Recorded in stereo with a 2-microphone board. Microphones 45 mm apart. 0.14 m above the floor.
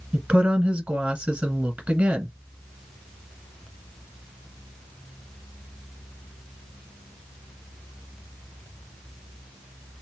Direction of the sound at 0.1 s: 30° right (ahead or behind).